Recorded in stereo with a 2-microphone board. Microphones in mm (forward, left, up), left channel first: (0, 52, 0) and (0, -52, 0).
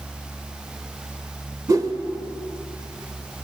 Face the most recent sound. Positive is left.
turn(degrees=-35)  # may be behind; listen again after turning